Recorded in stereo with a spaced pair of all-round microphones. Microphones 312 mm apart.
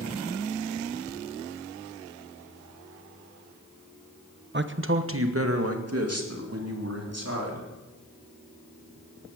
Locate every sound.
4.5 s a man speaking: 35° right (ahead or behind), 0.9 m; by 7.7 s 55° right (ahead or behind), 4 m